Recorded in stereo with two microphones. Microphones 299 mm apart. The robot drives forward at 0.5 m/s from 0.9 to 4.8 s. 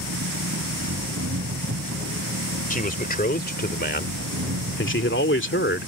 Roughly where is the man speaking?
Left.